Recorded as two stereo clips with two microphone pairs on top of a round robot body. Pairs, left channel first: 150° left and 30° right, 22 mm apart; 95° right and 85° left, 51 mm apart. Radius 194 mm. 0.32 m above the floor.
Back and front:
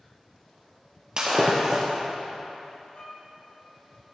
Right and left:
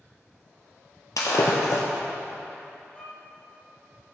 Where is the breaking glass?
90° right, 1.8 m.